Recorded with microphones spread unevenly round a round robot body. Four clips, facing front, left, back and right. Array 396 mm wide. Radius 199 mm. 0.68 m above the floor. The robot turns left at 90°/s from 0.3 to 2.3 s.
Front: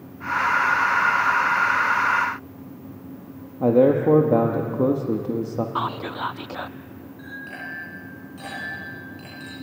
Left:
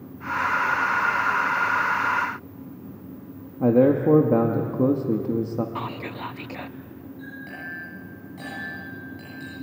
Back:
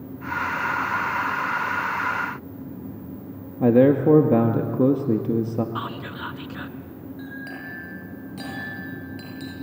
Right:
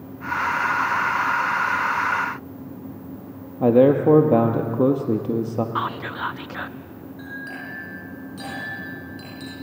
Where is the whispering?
35° left, 0.5 m.